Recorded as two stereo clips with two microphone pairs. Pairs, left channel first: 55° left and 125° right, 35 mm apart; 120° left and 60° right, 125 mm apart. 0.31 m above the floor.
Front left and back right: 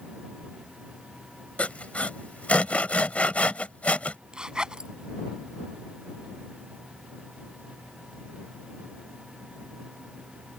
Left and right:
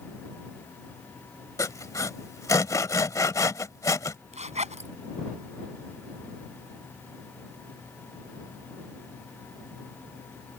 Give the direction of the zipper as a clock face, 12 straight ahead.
2 o'clock.